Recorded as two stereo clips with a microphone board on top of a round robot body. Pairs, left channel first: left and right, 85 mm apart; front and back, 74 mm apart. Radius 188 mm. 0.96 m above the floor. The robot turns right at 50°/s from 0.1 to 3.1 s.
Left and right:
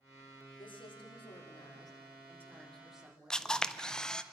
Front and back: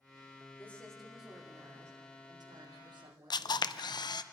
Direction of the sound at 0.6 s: 65° left.